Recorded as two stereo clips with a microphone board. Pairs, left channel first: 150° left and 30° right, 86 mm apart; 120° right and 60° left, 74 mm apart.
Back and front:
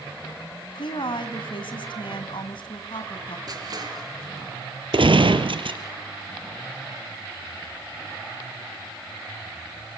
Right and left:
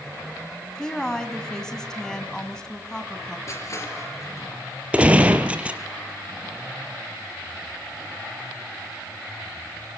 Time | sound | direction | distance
0.8 | a woman speaking | 160° left | 2.5 m
3.5 | crushing | 70° right | 4.5 m
4.9 | a gunshot | 15° right | 1.8 m